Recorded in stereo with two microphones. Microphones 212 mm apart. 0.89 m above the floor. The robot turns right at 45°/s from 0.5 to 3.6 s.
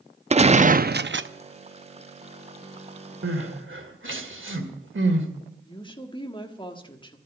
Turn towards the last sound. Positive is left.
turn(degrees=25)  # may be behind; listen again after turning